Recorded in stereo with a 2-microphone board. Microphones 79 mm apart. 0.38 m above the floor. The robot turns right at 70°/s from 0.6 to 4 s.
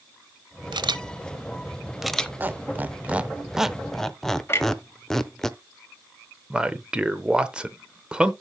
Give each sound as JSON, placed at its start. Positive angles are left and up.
{"t": 0.7, "sound": "a camera shutter", "side_deg": -70, "distance_m": 0.6}
{"t": 2.4, "sound": "a squeak", "side_deg": -25, "distance_m": 0.6}
{"t": 4.5, "sound": "a clunk", "side_deg": 30, "distance_m": 1.7}
{"t": 6.5, "sound": "a man speaking", "side_deg": -15, "distance_m": 0.9}